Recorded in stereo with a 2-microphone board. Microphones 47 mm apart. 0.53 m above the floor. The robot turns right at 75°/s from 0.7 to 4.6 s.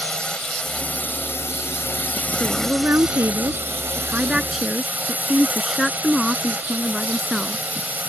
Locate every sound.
0.0 s a drone: 20° left; by 8.1 s 45° right
2.4 s a woman speaking: 165° right; by 7.6 s straight ahead